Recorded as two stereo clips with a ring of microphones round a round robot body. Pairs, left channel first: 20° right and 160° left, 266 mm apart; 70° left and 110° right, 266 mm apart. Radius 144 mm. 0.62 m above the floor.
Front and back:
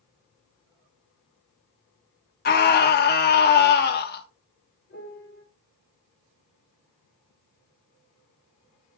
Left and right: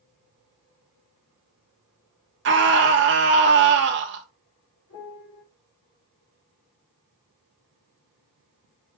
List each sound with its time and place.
2.5 s a scream: 75° right, 0.9 m
4.9 s a piano: 30° left, 3.5 m